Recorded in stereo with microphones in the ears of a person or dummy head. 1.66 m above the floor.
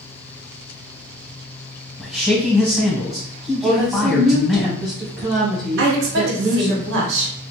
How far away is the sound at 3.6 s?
About 1.3 m.